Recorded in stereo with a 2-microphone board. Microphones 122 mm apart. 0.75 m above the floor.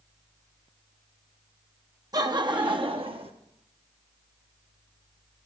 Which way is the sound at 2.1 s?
30° right (ahead or behind).